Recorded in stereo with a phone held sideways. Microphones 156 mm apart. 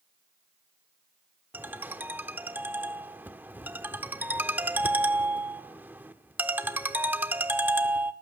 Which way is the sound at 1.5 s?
10° right (ahead or behind).